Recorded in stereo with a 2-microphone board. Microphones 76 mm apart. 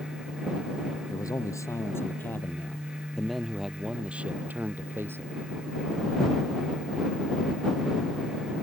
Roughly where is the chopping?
I don't hear chopping.